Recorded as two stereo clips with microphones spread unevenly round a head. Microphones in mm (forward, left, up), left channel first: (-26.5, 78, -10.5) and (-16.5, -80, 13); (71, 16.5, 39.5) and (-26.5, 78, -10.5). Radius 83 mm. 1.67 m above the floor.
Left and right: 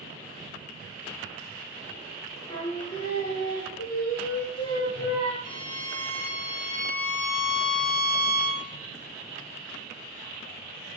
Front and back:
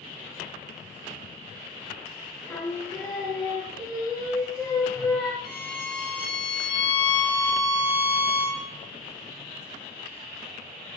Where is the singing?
30° left, 4 m.